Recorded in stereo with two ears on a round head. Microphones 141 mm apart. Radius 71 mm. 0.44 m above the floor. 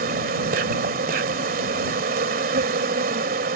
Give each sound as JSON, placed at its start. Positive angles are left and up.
{"t": 0.0, "sound": "an insect", "side_deg": -60}